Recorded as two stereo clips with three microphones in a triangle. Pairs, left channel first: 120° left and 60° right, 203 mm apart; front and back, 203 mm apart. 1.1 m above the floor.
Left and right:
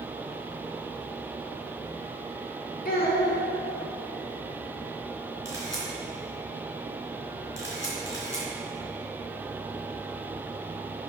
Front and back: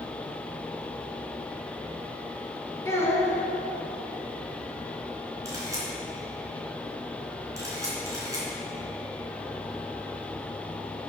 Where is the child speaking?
75° left, 2 m.